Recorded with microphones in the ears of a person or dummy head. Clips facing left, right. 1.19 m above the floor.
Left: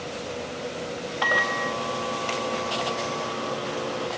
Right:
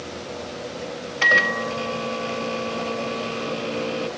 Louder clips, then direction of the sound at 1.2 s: Right 3 dB; 35° right (ahead or behind).